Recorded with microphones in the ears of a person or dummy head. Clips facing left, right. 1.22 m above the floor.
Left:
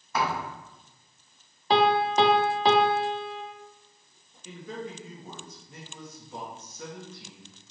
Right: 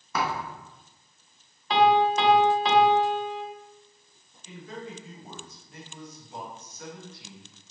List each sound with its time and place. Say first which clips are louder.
0.1 s a thud: left 1 dB; 70° right (ahead or behind), 1.8 m
1.7 s a piano: right 2 dB; 35° left (ahead or behind), 0.5 m
4.5 s a man speaking: left 2 dB; 80° left, 1.6 m